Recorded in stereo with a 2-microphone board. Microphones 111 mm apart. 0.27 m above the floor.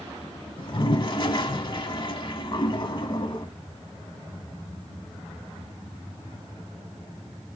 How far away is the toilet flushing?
About 0.8 m.